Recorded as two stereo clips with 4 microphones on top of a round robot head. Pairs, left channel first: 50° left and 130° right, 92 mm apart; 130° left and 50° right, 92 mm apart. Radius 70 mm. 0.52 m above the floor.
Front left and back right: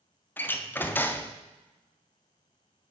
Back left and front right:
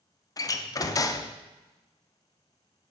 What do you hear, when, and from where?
0.4 s a door slam: 105° left, 0.5 m